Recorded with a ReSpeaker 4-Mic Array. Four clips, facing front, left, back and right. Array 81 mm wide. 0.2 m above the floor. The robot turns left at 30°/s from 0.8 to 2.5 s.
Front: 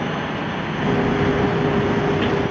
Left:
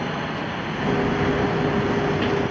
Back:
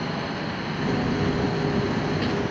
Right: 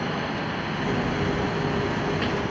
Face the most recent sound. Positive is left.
No sound to turn to.